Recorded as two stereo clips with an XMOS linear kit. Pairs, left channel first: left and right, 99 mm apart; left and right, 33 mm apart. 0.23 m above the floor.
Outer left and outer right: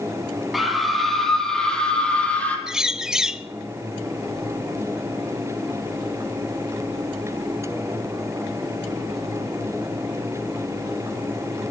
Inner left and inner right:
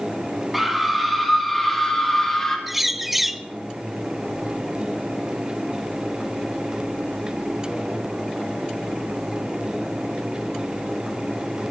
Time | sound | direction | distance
0.5 | a scream | centre (ahead or behind) | 7 m
2.7 | a bird | 5° right (ahead or behind) | 0.9 m